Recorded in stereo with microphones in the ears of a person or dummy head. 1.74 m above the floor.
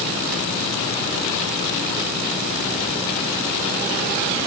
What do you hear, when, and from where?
Only background noise.